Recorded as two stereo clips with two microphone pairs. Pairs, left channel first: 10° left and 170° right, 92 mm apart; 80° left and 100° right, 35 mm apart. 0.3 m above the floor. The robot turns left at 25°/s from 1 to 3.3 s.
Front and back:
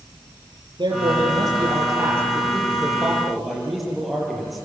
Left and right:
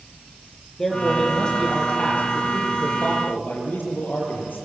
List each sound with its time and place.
0.8 s a man speaking: 155° left, 7 m; by 4.7 s 95° left, 7 m